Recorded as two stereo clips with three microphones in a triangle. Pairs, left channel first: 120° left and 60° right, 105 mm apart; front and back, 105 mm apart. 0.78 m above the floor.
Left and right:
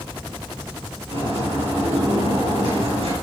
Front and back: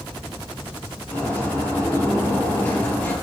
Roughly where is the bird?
Ahead right.